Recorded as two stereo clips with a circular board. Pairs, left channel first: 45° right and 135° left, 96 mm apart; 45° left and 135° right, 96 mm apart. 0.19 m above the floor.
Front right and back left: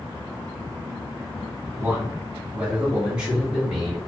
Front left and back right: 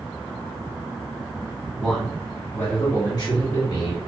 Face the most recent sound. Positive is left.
turn(degrees=45)